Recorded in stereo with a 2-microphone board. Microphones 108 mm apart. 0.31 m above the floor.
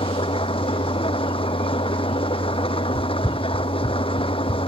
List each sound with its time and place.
0.0 s an engine running: 55° left (ahead or behind)
3.0 s running footsteps: 30° right (ahead or behind); by 4.7 s 45° left (ahead or behind)